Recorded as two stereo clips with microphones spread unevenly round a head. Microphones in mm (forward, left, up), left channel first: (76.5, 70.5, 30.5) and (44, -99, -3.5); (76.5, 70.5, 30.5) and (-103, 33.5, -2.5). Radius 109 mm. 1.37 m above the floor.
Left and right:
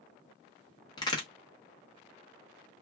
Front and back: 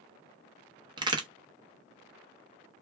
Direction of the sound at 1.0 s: 125° left.